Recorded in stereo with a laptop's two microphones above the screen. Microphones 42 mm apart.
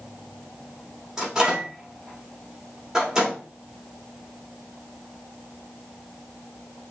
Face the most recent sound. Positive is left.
turn(degrees=-10)  # may be behind; listen again after turning